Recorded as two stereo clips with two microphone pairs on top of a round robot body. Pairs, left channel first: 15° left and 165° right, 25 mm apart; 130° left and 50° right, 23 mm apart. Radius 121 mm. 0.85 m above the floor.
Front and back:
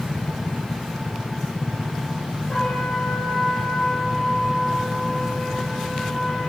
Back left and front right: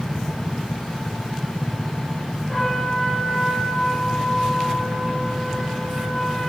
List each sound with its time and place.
2.5 s a trumpet: 70° left, 6 m